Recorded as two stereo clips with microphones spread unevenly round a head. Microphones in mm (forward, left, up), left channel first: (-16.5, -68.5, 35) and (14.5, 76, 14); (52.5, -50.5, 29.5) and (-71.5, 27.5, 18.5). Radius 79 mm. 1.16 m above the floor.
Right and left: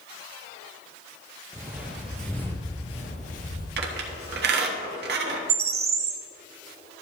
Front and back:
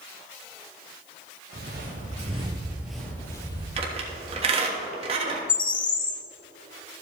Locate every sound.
1.5 s footsteps: 155° left, 2 m; by 3.7 s 85° right, 2 m
3.8 s a squeak: 95° left, 1.4 m
5.5 s a bird: 30° left, 0.8 m